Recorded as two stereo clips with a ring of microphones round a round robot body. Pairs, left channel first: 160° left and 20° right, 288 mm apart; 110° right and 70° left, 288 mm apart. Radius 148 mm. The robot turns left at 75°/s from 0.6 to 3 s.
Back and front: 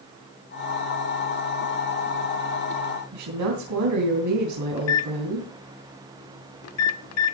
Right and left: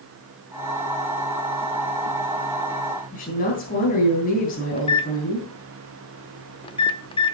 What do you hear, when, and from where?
3.1 s a woman speaking: 50° right, 3.5 m
4.8 s a microwave: straight behind, 0.9 m